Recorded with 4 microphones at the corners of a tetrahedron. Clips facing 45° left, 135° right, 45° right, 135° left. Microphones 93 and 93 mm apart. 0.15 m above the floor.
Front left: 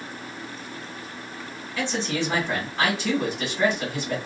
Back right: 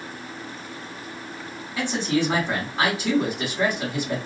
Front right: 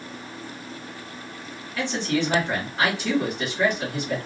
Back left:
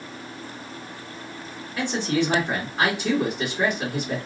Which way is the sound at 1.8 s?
175° left.